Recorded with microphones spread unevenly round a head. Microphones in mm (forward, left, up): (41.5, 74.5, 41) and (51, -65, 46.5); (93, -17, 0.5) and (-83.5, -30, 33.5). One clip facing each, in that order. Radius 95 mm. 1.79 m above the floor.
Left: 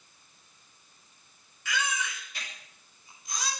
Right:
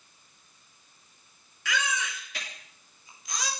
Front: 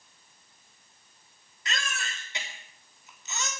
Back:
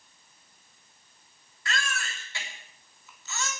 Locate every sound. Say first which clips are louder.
1.6 s a baby crying: right 1 dB, back 3 dB; 70° right, 3.5 m